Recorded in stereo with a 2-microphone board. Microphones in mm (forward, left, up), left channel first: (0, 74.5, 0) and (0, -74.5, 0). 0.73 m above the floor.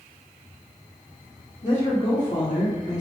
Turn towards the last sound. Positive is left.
turn(degrees=50)  # may be behind; listen again after turning